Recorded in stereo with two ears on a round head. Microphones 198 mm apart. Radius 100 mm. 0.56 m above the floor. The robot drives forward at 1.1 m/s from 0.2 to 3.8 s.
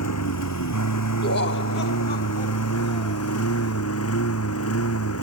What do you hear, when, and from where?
0.0 s a lawn mower: 80° left; by 5.2 s 75° left (ahead or behind)
1.2 s laughter: 45° left (ahead or behind); by 3.2 s 25° left (ahead or behind)